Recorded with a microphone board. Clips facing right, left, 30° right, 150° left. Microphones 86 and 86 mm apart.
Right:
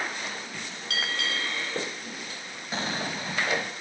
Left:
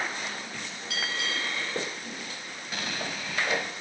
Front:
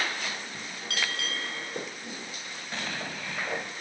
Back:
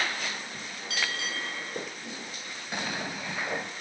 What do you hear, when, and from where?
0.9 s a bell: 65° right, 9 m
2.7 s an explosion: 140° right, 0.9 m